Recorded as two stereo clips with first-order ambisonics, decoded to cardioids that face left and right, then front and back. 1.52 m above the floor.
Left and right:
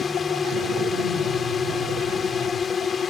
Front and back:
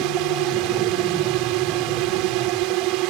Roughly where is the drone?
Behind.